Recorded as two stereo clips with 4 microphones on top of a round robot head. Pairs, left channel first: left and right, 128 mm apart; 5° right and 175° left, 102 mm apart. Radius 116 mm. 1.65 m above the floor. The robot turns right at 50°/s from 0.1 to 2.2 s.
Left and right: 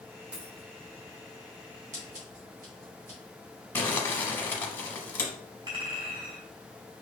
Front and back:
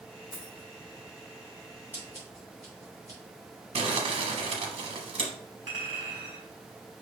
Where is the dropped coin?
170° right, 1.1 m; by 0.7 s 150° right, 1.1 m.